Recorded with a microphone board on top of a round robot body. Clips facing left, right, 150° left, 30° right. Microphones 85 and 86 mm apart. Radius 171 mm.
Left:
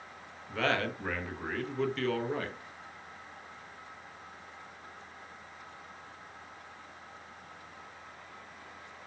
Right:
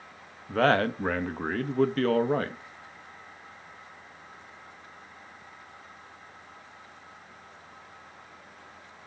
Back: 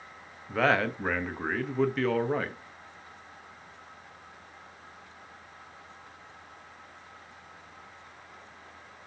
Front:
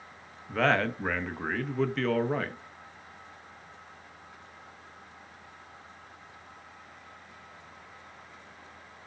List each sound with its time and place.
0.5 s a man speaking: 125° right, 0.9 m